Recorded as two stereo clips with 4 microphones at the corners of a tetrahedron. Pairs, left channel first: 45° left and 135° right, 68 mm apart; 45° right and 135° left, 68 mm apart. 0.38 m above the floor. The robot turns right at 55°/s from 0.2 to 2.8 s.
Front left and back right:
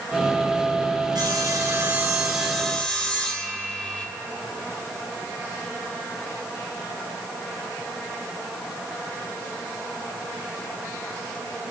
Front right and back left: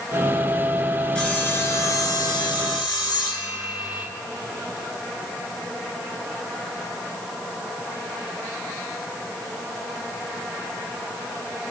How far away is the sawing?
About 3.5 m.